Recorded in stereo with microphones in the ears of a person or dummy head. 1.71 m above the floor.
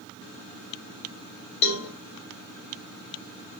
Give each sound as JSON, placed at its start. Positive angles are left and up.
{"t": 1.6, "sound": "a cowbell", "side_deg": 65, "distance_m": 1.3}